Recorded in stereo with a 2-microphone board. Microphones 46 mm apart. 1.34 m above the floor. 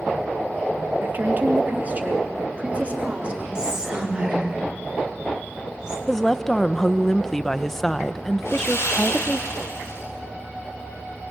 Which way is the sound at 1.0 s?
45° right (ahead or behind).